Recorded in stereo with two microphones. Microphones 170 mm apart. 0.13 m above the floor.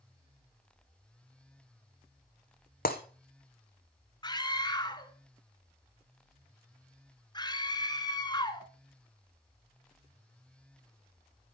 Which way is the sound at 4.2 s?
25° left (ahead or behind).